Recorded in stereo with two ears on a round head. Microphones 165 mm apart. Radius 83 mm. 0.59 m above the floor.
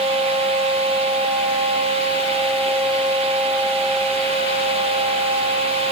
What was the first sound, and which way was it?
Only background noise.